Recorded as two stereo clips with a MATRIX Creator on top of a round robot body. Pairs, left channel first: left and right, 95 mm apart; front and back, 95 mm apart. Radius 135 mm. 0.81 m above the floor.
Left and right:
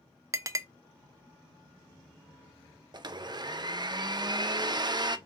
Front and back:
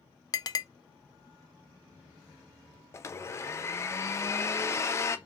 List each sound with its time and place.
0.3 s a clink: 40° right, 0.5 m
2.9 s a blender: 55° right, 0.6 m